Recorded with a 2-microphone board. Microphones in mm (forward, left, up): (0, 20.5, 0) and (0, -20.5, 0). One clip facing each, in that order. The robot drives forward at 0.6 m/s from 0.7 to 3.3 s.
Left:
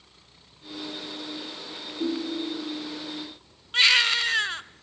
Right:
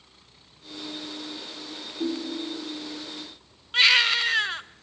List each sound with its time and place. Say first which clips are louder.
2.0 s a ringtone: left 1 dB; centre (ahead or behind), 2 m
3.7 s a baby crying: right 1 dB; 5° right (ahead or behind), 0.5 m